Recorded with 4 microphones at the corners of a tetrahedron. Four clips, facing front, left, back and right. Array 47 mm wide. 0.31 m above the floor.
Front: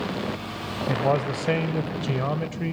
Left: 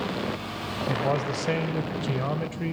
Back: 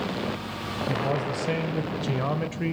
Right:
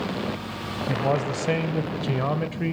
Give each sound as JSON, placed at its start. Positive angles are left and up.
{"t": 0.9, "sound": "a man speaking", "azimuth_deg": -15, "distance_m": 1.3}